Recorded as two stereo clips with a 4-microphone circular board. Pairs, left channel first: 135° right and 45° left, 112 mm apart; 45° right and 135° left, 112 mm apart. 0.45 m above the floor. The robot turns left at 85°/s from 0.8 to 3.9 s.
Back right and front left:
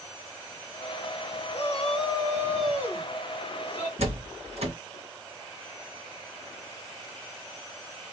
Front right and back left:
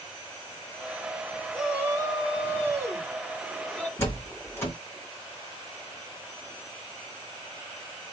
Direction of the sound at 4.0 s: 25° left.